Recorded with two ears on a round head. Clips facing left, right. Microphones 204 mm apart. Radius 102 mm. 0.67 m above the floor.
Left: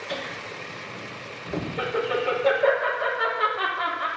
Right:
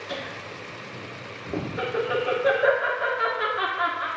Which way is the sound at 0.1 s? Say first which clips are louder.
Left 1 dB; 10° right (ahead or behind).